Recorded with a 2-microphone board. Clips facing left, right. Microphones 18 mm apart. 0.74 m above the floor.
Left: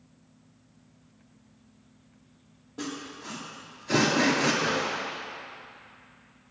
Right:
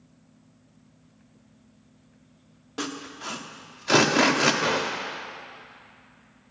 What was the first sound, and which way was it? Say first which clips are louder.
Sawing: right 3 dB; 60° right (ahead or behind).